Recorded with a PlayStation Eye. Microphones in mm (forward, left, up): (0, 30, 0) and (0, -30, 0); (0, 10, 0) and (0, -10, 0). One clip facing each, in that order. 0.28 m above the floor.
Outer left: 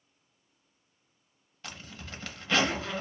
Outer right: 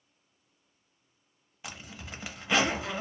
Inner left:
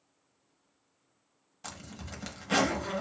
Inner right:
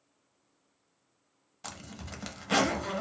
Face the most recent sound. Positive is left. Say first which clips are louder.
# outer right 1 dB, inner right 1 dB
turn(degrees=-15)  # may be behind; listen again after turning